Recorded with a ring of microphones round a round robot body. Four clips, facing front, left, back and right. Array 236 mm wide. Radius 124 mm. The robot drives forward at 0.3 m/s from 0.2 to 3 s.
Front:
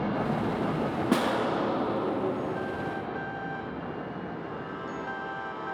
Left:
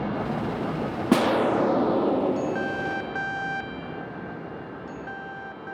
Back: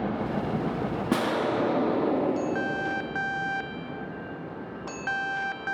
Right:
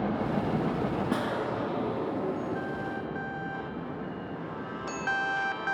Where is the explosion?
90° left, 0.6 m; by 3.1 s 135° left, 0.8 m.